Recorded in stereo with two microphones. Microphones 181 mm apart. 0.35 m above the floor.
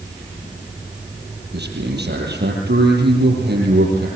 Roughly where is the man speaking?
Right.